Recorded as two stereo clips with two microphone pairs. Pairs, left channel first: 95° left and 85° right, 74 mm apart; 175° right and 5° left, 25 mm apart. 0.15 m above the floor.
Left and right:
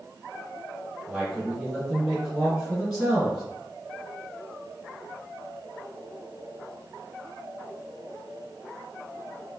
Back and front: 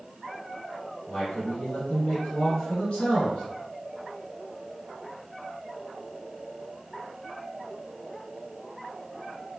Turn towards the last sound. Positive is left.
turn(degrees=-165)